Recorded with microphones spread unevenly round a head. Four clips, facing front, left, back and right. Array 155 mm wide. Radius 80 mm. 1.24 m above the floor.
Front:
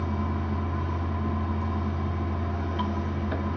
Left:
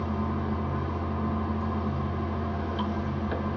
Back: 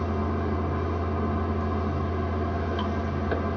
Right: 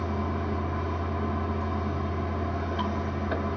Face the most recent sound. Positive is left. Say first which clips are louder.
# even, back 3 dB
turn(degrees=-170)